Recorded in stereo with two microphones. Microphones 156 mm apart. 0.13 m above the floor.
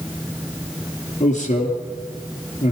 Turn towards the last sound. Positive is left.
turn(degrees=45)  # may be behind; listen again after turning